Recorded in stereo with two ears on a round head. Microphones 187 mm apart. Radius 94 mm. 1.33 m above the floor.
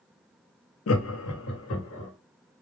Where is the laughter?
75° left (ahead or behind), 0.5 m.